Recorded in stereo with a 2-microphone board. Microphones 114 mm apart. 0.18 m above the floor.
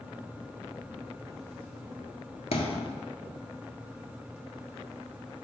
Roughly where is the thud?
Left.